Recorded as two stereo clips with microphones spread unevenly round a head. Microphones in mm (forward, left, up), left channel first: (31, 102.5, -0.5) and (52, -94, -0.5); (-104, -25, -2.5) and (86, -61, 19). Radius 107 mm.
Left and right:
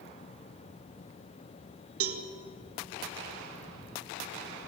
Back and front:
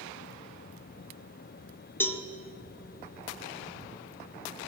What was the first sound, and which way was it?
A cowbell, 110° right.